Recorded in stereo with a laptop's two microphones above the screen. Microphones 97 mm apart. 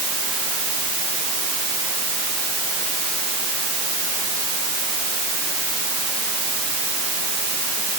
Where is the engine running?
No engine running in this recording.